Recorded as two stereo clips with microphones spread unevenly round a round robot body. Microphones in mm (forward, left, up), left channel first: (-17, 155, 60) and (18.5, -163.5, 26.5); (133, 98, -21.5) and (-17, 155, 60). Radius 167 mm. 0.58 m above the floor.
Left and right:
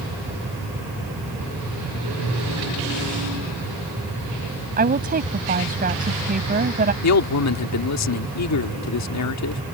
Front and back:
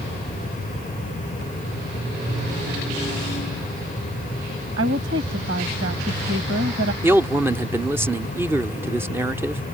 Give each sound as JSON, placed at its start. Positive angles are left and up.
{"t": 4.8, "sound": "a woman speaking", "azimuth_deg": -150}
{"t": 7.0, "sound": "a man speaking", "azimuth_deg": 65}